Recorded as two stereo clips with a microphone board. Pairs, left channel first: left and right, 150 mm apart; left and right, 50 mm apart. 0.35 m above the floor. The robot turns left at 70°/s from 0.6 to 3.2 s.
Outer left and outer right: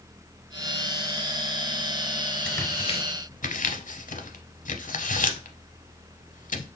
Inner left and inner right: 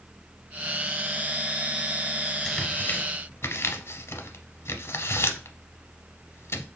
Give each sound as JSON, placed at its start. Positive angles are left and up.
{"t": 2.5, "sound": "tearing paper", "side_deg": 10, "distance_m": 0.6}